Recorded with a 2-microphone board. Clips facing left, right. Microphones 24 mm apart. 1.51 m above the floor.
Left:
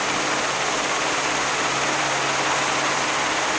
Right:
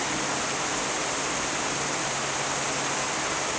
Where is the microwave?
I don't hear a microwave.